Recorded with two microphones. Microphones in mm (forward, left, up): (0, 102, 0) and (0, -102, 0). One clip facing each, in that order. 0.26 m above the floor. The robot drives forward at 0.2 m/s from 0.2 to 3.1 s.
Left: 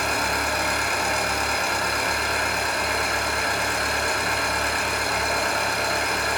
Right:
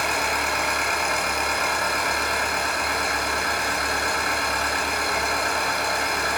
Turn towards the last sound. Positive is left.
turn(degrees=25)  # may be behind; listen again after turning